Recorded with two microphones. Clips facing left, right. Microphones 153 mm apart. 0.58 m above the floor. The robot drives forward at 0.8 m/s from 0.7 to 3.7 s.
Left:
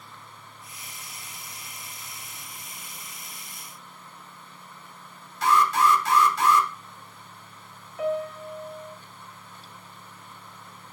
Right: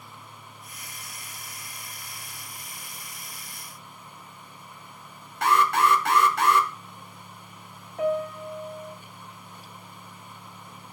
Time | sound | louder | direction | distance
5.4 | an alarm | left 1 dB | 70° right (ahead or behind) | 0.9 m
8.0 | a piano | right 2 dB | 50° right (ahead or behind) | 1.4 m